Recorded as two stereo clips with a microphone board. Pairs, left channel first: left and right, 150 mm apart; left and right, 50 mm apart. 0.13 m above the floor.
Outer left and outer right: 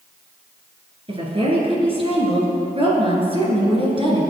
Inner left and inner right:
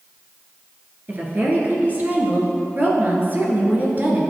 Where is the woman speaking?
40° right (ahead or behind), 2 m.